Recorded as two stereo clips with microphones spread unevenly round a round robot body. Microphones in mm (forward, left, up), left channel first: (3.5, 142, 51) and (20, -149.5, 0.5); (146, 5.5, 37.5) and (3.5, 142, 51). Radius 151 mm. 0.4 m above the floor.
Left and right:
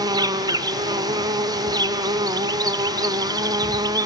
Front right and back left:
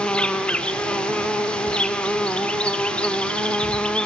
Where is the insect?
115° right, 0.9 m.